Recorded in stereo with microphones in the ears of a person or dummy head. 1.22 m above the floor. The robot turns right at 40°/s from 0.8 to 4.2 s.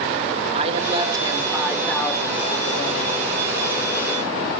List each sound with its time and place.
0.5 s a woman speaking: 35° right, 3 m; by 3.2 s 60° left, 3 m